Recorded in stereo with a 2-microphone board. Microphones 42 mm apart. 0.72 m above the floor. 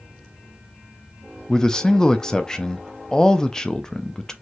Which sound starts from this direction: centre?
A man speaking, at 1.5 s.